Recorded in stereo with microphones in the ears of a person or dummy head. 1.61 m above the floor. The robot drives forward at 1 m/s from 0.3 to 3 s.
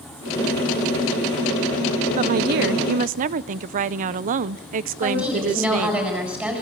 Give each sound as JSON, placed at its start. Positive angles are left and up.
{"t": 2.2, "sound": "a woman speaking", "side_deg": -35, "distance_m": 0.7}
{"t": 5.0, "sound": "a woman speaking", "side_deg": -10, "distance_m": 8.0}